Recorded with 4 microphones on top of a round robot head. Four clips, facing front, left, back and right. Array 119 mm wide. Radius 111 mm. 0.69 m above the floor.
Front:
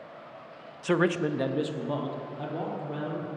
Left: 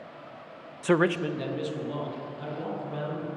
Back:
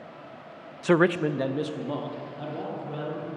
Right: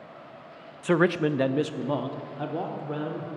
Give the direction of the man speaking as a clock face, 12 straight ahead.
7 o'clock.